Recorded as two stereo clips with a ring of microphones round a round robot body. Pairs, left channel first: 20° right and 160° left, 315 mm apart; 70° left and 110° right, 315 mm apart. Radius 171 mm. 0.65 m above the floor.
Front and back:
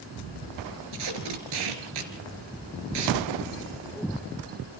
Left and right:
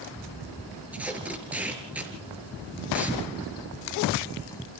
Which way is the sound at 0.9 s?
160° left.